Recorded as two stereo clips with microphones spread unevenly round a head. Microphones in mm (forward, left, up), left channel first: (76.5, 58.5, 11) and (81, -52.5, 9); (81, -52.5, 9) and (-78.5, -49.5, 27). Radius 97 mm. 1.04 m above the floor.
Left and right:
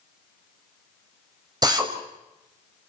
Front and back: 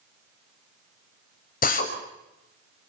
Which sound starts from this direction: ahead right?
A drill, at 1.6 s.